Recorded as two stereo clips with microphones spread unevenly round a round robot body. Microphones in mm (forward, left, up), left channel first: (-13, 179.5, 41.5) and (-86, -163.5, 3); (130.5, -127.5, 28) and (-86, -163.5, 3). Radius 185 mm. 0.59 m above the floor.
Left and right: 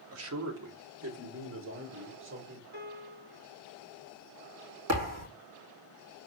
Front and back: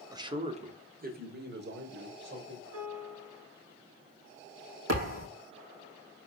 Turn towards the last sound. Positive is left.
turn(degrees=-145)